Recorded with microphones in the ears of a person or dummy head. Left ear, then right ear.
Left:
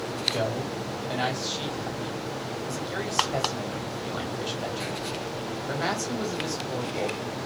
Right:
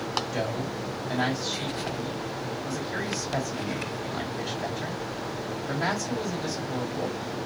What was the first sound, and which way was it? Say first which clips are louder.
A man speaking: left 1 dB; 15° left (ahead or behind).